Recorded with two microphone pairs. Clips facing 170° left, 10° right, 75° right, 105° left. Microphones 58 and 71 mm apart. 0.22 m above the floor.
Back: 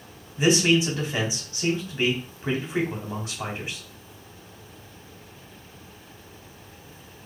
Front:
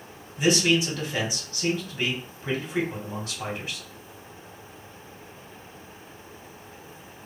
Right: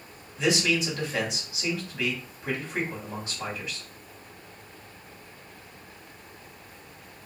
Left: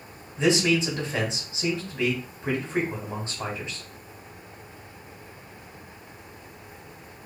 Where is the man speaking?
130° left, 1.1 m.